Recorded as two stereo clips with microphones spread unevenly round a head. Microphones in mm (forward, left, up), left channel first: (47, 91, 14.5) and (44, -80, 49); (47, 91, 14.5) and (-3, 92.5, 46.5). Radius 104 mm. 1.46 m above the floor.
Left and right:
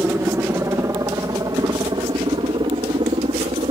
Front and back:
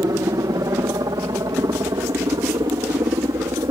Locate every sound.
0.0 s a helicopter: 170° right; by 3.7 s 155° right